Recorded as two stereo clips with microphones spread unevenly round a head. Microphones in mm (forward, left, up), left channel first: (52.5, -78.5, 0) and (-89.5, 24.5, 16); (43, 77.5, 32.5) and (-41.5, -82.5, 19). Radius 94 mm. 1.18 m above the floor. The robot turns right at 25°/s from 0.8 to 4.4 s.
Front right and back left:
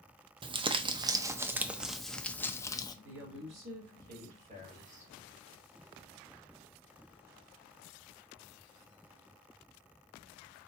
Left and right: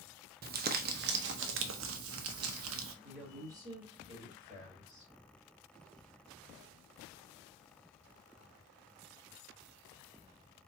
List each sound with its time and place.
0.4 s crumpling: 160° right, 0.6 m; by 2.9 s 105° right, 0.6 m
3.0 s a woman speaking: 160° left, 2.5 m; by 5.1 s 165° right, 2.5 m